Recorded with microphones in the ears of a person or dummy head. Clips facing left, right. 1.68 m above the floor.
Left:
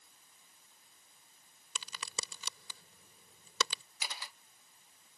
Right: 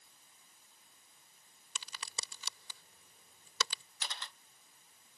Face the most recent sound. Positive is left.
turn(degrees=5)  # may be behind; listen again after turning